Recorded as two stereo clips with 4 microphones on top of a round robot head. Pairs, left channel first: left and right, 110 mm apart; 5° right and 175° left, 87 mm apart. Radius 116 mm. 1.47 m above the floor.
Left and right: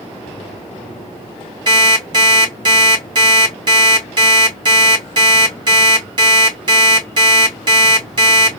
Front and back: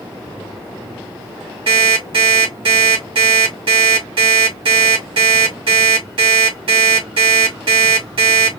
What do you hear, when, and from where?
1.7 s an alarm clock: 140° right, 2 m